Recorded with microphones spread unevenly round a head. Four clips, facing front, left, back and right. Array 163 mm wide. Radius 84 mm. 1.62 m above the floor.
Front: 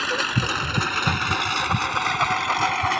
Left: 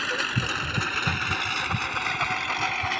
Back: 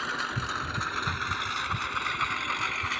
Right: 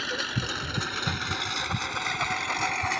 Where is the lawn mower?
5° left; by 3.0 s 5° right.